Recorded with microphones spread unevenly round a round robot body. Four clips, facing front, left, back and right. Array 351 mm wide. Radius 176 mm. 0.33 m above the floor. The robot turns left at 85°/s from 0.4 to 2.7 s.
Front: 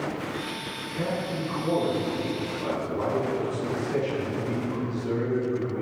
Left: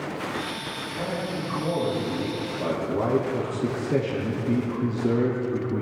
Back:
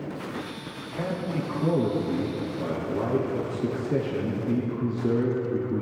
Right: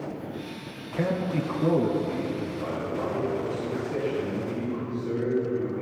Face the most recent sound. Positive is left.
turn(degrees=135)